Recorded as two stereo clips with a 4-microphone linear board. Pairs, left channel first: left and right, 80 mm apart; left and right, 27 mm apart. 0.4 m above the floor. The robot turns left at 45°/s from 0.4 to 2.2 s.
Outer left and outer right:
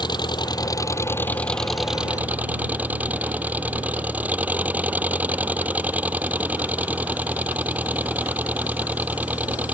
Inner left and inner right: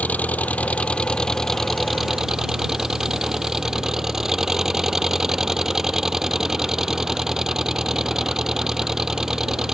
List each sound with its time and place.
0.0 s an engine running: 65° left; by 9.7 s 20° right